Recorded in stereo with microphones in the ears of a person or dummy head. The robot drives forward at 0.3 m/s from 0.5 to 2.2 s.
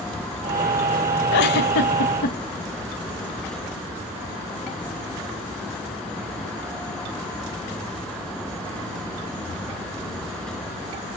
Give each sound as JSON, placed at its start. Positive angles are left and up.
{"t": 1.3, "sound": "a giggle", "side_deg": 55, "distance_m": 0.6}